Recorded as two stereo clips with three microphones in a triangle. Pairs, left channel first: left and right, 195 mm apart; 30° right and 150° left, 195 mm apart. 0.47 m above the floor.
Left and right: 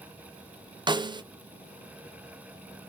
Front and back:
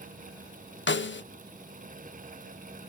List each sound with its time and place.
0.9 s a snare drum: 20° right, 0.5 m